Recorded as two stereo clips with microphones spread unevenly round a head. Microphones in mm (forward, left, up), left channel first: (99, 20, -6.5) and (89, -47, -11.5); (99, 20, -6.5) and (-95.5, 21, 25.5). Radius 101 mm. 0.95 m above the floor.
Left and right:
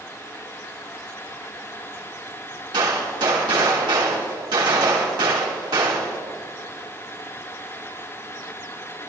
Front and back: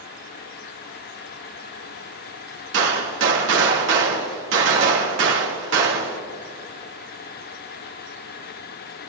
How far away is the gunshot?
About 1.7 m.